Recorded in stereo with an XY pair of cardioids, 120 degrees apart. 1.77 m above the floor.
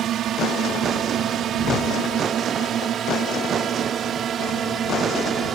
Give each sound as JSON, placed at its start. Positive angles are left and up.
{"t": 0.0, "sound": "a drone", "azimuth_deg": -60}